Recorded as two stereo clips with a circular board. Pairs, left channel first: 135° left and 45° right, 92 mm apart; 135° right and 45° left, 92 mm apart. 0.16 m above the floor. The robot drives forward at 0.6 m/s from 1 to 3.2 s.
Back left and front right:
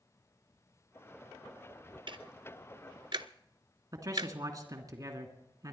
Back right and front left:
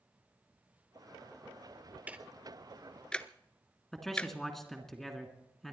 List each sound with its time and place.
2.1 s ticking: 30° right, 1.2 m; by 4.3 s 60° right, 0.7 m
3.9 s a man speaking: 50° right, 2 m